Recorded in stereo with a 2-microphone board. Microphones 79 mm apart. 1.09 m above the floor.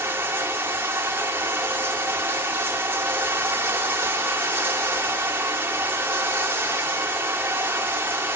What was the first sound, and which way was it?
Running water, 30° right (ahead or behind).